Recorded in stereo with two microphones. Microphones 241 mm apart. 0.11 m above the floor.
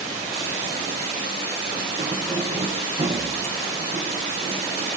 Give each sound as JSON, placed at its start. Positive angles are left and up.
{"t": 2.0, "sound": "keys jangling", "side_deg": -25, "distance_m": 5.5}